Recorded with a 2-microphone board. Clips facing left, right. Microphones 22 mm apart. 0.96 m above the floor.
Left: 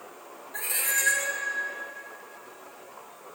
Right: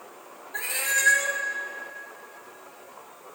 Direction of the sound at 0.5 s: 20° right (ahead or behind).